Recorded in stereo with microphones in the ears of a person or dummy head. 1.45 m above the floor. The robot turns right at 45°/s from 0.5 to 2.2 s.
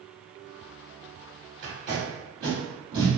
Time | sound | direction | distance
1.6 | tape being pulled | 50° right (ahead or behind) | 1.7 m